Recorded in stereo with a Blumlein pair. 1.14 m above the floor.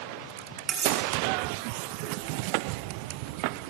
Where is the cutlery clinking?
25° right, 3.5 m.